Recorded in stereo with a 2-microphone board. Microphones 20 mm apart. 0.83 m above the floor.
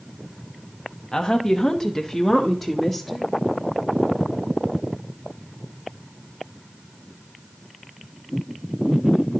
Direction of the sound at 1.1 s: 30° left (ahead or behind).